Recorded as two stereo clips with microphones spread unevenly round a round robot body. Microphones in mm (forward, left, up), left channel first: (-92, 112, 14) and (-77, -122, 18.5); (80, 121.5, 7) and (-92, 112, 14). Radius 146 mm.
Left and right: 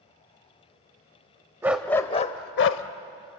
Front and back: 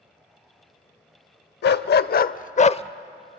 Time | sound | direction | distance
1.6 | a dog barking | 5° right | 0.6 m